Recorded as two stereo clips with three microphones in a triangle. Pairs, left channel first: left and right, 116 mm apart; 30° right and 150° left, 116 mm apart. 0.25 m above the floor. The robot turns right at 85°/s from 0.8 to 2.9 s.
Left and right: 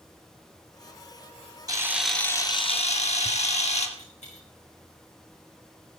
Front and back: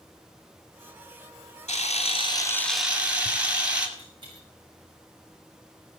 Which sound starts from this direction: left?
A dropped coin, at 4.0 s.